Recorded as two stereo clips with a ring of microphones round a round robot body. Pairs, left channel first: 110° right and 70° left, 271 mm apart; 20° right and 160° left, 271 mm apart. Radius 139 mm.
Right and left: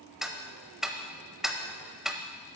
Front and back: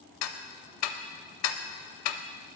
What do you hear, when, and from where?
0.2 s ticking: 20° right, 0.6 m